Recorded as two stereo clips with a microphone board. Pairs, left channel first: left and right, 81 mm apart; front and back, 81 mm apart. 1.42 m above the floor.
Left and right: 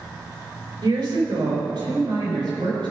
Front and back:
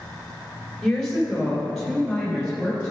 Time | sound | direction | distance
0.8 | a woman speaking | 85° right | 3.5 m